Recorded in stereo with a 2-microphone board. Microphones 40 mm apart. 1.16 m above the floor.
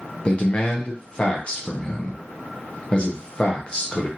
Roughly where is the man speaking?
Left.